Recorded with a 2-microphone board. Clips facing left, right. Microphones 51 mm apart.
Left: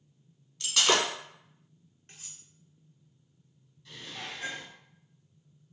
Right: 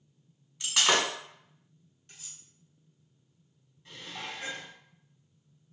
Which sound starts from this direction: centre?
Breaking glass, at 0.6 s.